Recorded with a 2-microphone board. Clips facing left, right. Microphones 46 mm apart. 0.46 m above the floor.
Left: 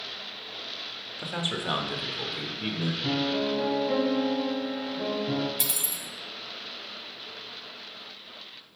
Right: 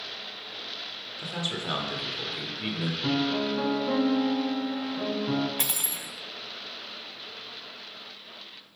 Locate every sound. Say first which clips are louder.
1.2 s a man speaking: left 2 dB; 25° left (ahead or behind), 1.2 m; by 2.9 s 10° right (ahead or behind), 1.4 m
3.0 s a piano: right 1 dB; 80° right, 2.5 m
5.6 s cutlery clinking: right 1 dB; 45° right (ahead or behind), 0.7 m